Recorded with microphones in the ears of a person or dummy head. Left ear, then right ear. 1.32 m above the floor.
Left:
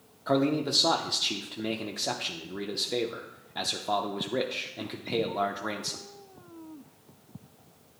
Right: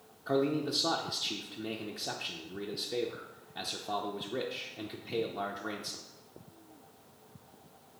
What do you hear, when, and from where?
0.3 s a man speaking: 15° left (ahead or behind), 0.5 m